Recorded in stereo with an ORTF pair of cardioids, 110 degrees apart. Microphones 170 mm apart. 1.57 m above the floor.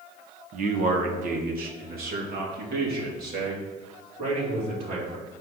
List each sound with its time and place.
0.5 s a man speaking: 50° right, 1.2 m; by 5.2 s 65° right, 4.5 m